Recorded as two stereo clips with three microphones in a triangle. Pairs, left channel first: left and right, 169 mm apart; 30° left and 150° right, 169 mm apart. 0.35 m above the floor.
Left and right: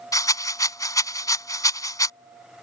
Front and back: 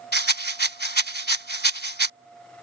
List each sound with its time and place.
0.1 s a rattle: 20° left